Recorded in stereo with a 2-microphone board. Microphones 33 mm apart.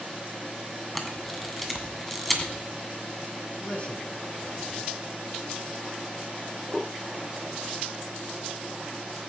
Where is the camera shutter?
5° left (ahead or behind), 2.0 m.